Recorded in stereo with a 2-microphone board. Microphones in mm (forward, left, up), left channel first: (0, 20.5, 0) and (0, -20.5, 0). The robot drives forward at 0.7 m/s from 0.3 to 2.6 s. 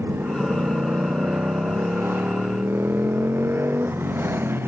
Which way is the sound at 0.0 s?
70° right (ahead or behind).